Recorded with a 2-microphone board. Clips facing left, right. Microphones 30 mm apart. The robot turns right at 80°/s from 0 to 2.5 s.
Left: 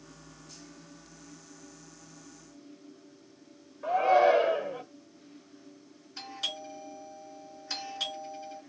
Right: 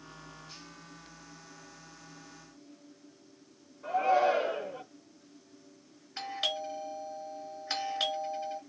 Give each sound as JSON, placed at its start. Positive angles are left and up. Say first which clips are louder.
{"t": 3.8, "sound": "a shout", "louder": "left 4 dB", "side_deg": 45, "distance_m": 1.0}
{"t": 6.2, "sound": "a doorbell", "louder": "right 3 dB", "side_deg": -30, "distance_m": 1.8}